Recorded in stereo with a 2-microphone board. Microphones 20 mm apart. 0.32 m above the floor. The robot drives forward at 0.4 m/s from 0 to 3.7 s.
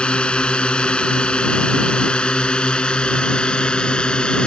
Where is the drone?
75° left (ahead or behind); by 4.5 s 60° left (ahead or behind).